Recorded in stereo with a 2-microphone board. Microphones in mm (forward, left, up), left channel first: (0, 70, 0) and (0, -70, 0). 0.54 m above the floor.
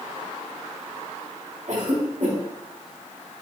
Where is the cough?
70° right (ahead or behind), 5 m.